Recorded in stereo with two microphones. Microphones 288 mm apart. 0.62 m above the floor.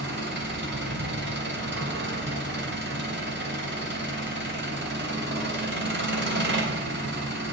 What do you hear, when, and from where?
0.0 s an engine running: 40° right (ahead or behind), 3 m